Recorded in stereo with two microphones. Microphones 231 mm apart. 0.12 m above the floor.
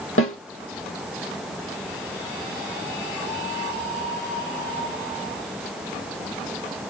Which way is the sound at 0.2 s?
70° left (ahead or behind).